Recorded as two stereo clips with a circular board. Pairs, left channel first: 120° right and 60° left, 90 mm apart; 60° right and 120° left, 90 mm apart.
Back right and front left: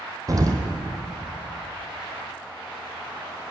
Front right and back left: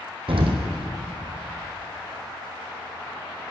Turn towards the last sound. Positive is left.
turn(degrees=110)